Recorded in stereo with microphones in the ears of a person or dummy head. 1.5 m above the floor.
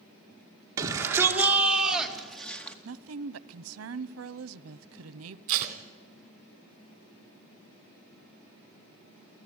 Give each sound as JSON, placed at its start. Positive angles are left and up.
{"t": 0.8, "sound": "a shout", "side_deg": -20, "distance_m": 2.0}
{"t": 2.9, "sound": "a woman speaking", "side_deg": -85, "distance_m": 0.7}
{"t": 5.5, "sound": "tape being pulled", "side_deg": -50, "distance_m": 1.9}